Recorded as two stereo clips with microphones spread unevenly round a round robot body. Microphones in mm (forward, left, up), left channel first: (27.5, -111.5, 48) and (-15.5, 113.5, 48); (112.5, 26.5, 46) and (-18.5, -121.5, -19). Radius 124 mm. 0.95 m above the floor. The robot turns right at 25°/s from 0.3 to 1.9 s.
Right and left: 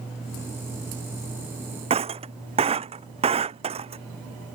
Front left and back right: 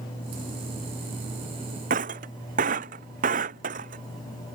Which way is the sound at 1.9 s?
165° left.